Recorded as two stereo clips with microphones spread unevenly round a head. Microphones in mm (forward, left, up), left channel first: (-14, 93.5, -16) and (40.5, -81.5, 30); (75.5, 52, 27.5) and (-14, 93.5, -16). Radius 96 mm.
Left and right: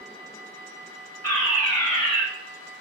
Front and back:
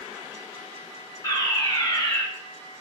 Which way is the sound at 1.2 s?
40° left.